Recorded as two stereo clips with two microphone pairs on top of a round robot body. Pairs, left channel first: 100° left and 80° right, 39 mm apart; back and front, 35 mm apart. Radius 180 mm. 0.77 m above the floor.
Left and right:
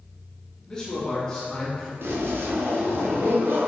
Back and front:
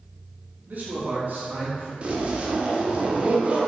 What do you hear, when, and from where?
0.7 s a man speaking: 25° left, 2 m
2.0 s a zipper: 50° right, 1.4 m